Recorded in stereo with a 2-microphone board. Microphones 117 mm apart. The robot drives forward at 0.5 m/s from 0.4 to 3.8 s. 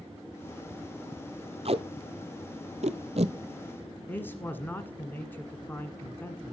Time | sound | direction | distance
1.6 | tape being pulled | 60° right (ahead or behind) | 0.9 m
4.1 | a man speaking | 20° left (ahead or behind) | 1.1 m